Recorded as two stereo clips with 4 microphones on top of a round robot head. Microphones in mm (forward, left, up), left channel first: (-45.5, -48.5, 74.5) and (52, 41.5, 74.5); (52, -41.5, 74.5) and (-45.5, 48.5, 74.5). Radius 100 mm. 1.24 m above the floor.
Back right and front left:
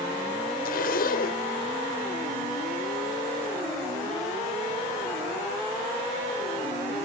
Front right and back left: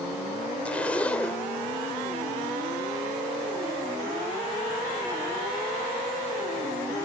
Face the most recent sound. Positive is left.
turn(degrees=-125)